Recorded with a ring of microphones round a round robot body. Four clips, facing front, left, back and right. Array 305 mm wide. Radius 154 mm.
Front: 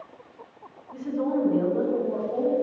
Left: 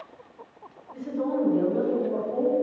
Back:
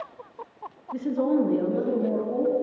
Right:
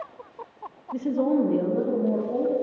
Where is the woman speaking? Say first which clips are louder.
Right 5 dB, back 3 dB; 120° right, 1.3 m; by 2.5 s 135° right, 2 m.